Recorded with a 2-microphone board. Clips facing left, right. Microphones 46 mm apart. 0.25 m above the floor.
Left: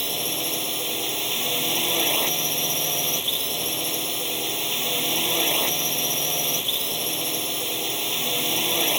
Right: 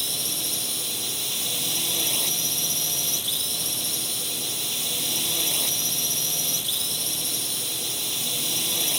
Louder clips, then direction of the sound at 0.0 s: Left 4 dB; 40° left (ahead or behind).